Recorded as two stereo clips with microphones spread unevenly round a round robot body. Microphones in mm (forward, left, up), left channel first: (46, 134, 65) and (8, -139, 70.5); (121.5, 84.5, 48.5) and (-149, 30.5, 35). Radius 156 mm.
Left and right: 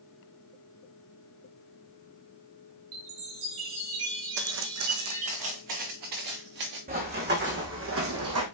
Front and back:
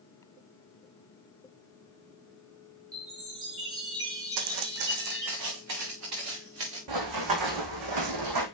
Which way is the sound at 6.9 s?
160° right.